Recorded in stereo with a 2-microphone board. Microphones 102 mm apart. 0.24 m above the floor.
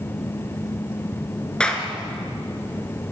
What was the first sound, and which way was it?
A clap, 10° left (ahead or behind).